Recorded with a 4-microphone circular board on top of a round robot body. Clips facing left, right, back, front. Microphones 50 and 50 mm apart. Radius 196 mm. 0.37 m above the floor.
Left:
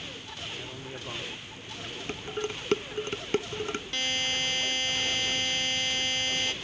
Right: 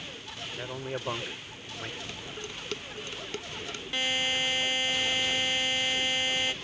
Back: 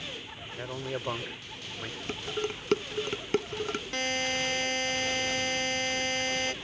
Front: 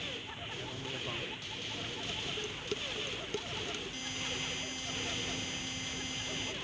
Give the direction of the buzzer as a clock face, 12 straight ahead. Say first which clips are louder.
Right 3 dB, back 10 dB; 6 o'clock.